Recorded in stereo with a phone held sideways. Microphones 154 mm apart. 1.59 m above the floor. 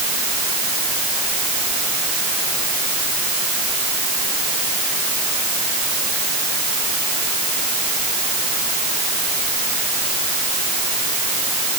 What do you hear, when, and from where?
Only background noise.